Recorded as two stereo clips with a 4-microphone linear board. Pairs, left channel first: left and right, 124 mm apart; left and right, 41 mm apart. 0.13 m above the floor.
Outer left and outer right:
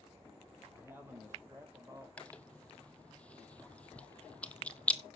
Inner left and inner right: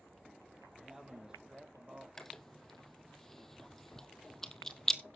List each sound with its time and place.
0.7 s a man speaking: 15° right (ahead or behind), 4.5 m; by 2.1 s 30° right (ahead or behind), 3.5 m
2.2 s chewing: 10° left (ahead or behind), 0.9 m